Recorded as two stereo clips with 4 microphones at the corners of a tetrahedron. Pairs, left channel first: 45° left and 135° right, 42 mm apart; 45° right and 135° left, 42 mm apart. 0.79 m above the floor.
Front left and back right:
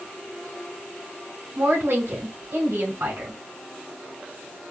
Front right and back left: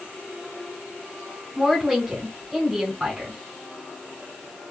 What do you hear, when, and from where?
1.6 s a woman speaking: 145° right, 3 m